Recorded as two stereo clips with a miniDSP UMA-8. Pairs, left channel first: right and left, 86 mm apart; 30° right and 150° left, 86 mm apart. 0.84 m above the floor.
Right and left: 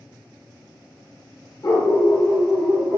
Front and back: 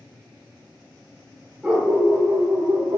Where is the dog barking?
130° right, 0.6 m; by 3.0 s 140° left, 0.6 m.